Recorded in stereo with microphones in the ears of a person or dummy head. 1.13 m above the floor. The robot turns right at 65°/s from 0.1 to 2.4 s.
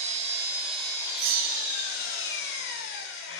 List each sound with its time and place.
0.0 s an engine running: 45° right, 1.7 m; by 3.4 s 105° left, 1.7 m
1.2 s a bell: 105° right, 1.0 m; by 2.0 s 50° right, 1.0 m